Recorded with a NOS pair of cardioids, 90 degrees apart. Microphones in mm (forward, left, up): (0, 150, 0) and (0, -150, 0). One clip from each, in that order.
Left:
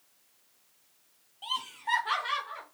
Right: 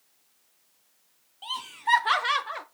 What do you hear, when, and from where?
1.4 s laughter: 10° right, 0.8 m; by 2.6 s 65° right, 0.9 m